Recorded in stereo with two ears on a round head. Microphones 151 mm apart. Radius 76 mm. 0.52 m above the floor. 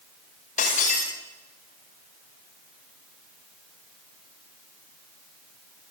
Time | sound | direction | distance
0.6 | breaking glass | 45° left (ahead or behind) | 9 m